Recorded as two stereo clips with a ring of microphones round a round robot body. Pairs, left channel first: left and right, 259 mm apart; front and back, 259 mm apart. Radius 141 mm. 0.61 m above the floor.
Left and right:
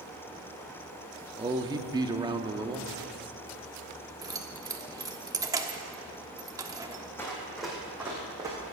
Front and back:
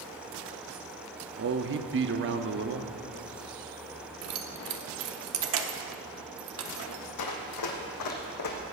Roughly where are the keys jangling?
Behind.